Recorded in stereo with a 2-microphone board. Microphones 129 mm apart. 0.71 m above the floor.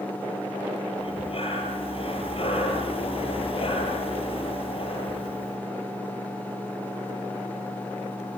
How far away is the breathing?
About 6.5 m.